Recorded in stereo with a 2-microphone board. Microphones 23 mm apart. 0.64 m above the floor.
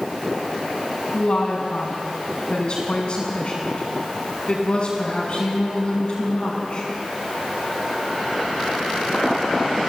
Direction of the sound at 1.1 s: 40° left (ahead or behind).